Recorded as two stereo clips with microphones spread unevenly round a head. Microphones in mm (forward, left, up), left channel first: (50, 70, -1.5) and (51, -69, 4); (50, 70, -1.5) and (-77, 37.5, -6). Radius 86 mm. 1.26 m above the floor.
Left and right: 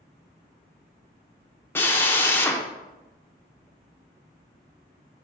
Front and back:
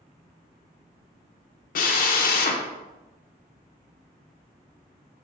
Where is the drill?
15° left, 0.6 m.